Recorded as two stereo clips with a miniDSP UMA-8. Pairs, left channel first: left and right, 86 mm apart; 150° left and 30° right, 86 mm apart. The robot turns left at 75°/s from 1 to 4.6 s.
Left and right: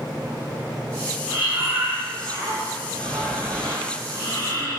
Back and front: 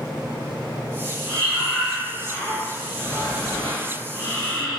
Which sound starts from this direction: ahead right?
Breathing, at 1.3 s.